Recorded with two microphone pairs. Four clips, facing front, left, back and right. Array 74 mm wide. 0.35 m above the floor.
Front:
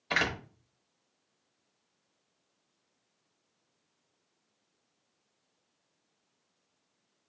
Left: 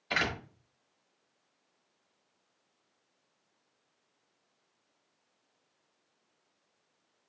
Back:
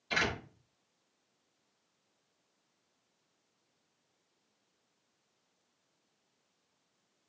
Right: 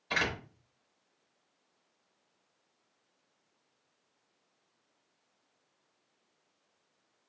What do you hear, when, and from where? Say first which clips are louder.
0.1 s a door slam: left 1 dB, front 3 dB; 20° left, 1.2 m